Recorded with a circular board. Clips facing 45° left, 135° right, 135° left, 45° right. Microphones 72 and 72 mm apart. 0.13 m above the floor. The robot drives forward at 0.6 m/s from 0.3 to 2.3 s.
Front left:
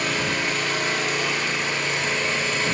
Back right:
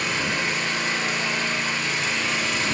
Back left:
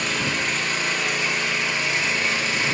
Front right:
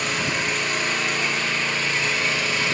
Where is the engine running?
40° left, 2.5 m; by 2.7 s 70° left, 1.7 m.